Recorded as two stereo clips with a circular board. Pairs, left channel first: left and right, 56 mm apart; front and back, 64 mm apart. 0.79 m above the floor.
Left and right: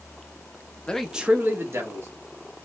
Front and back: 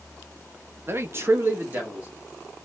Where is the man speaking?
150° left, 0.6 m; by 2.1 s 115° right, 1.5 m.